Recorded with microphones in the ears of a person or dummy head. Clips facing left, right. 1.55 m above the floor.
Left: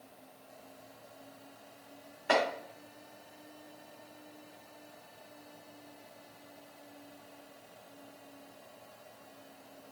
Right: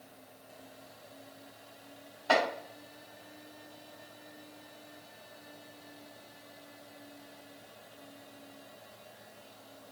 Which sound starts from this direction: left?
Chopping, at 2.3 s.